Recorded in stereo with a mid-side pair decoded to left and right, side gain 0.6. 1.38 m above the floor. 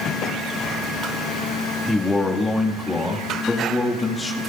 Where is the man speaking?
15° left, 1.9 m.